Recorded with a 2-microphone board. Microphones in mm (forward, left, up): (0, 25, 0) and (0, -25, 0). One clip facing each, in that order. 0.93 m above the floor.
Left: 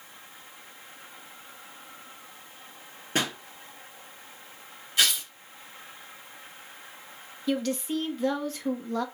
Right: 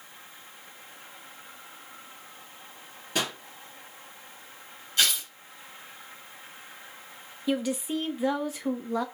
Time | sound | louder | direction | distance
3.1 | a pop | left 2 dB | 35° left (ahead or behind) | 3 m
5.0 | tearing paper | left 1 dB | 15° left (ahead or behind) | 4 m
7.5 | a woman speaking | even | 10° right (ahead or behind) | 0.8 m